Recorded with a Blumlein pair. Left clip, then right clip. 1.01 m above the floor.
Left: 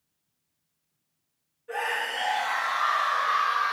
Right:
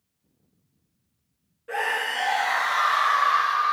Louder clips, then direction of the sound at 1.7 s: Right 3 dB; 65° right.